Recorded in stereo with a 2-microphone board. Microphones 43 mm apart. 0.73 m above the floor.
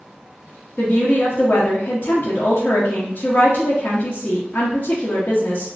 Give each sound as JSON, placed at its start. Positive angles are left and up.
{"t": 0.8, "sound": "a woman speaking", "side_deg": 45, "distance_m": 0.7}